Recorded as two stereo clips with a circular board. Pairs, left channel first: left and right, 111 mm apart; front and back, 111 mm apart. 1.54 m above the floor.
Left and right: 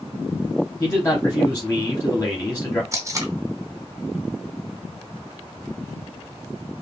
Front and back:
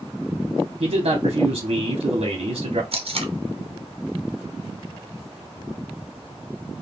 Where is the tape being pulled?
150° right, 0.6 m.